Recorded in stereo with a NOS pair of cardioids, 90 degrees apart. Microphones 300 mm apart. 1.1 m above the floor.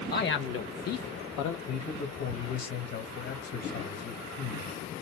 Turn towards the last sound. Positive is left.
turn(degrees=55)